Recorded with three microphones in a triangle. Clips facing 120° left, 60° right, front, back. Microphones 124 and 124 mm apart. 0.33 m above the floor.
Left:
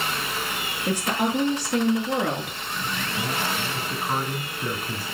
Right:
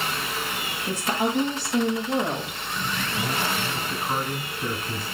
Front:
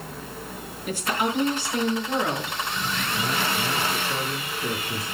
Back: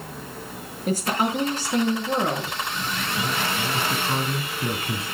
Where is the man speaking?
165° right, 2.5 m.